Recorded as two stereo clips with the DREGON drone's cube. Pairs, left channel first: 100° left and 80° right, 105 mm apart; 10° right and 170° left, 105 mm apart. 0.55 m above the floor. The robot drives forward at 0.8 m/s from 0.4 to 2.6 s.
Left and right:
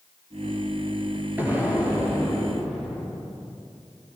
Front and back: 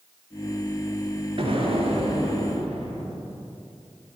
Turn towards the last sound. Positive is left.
turn(degrees=-160)